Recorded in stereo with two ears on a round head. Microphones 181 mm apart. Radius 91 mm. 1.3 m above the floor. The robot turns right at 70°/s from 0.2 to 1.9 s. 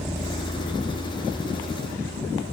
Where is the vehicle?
5° right (ahead or behind); by 2.5 s 30° right (ahead or behind).